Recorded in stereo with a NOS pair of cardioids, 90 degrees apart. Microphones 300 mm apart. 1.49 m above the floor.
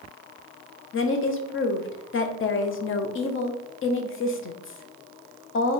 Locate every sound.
0.9 s a woman speaking: 45° left, 0.8 m